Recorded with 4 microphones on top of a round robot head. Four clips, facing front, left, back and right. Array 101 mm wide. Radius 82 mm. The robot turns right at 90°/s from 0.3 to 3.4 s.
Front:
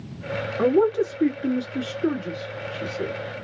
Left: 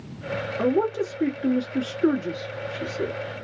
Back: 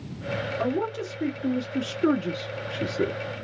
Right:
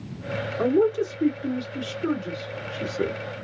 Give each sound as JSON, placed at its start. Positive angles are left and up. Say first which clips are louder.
{"t": 0.6, "sound": "a man speaking", "louder": "right 2 dB, front 11 dB", "azimuth_deg": 10, "distance_m": 1.6}